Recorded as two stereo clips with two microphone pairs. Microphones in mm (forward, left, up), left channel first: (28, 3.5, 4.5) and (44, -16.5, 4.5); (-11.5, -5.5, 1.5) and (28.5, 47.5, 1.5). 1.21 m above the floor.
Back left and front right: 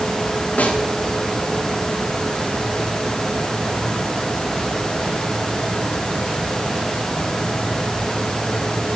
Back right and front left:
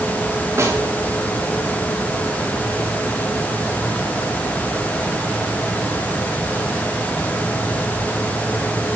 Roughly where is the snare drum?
Left.